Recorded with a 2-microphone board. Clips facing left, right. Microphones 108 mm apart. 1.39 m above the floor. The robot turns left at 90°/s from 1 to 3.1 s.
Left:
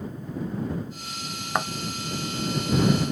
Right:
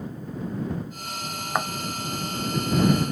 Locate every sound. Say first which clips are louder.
1.6 s a thud: even; 5° right (ahead or behind); by 1.7 s 15° right (ahead or behind)